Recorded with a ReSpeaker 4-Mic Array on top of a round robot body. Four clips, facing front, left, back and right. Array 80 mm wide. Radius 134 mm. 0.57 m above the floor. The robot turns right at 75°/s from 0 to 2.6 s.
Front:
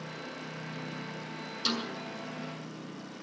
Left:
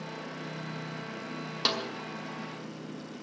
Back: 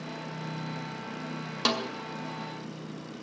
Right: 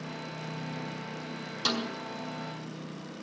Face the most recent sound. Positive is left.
turn(degrees=-140)